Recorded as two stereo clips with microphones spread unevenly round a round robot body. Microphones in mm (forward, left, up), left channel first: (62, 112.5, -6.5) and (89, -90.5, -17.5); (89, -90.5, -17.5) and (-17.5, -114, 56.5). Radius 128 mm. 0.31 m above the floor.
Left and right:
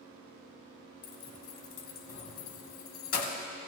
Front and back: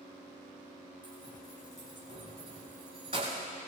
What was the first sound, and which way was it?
Keys jangling, 115° left.